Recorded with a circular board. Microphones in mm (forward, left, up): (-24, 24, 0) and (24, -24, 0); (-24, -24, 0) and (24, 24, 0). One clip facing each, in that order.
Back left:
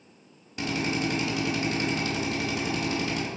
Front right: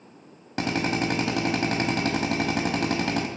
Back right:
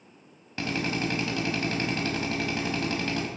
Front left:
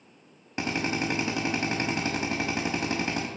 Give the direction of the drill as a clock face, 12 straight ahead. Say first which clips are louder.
Front right 3 dB, even; 1 o'clock.